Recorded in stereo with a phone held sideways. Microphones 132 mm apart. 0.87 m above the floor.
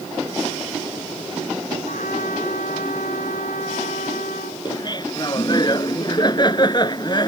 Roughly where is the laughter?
Left.